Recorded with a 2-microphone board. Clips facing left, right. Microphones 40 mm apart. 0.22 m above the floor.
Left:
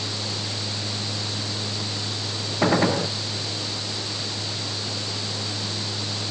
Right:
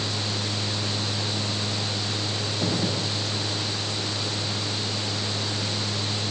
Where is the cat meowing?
No cat meowing in this recording.